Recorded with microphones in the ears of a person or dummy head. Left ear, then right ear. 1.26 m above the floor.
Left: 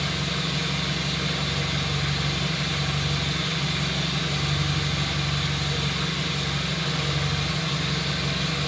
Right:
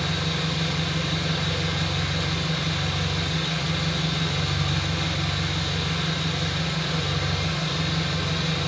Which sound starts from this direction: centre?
An engine running, at 0.0 s.